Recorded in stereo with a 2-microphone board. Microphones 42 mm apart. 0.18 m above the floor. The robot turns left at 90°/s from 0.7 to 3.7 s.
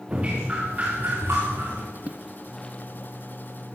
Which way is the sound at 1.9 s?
40° right (ahead or behind).